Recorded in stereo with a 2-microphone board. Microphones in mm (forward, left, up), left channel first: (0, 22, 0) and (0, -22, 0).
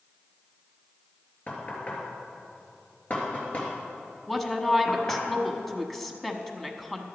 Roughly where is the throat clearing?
No throat clearing in this recording.